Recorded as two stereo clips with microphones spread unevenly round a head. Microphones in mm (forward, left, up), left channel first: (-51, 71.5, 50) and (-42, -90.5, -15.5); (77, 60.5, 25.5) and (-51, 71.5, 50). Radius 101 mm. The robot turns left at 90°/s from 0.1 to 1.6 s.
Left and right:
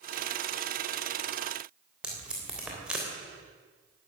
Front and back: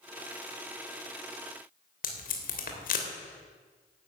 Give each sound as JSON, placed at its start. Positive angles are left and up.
{"t": 2.0, "sound": "tape being pulled", "azimuth_deg": 5, "distance_m": 3.0}